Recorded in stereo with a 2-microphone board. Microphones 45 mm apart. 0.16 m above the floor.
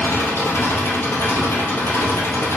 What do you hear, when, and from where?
0.0 s an engine running: 60° left (ahead or behind), 1.8 m